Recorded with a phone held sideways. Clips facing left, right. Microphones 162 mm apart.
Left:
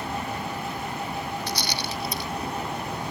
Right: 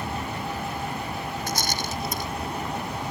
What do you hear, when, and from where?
1.5 s a rattle: 45° right (ahead or behind)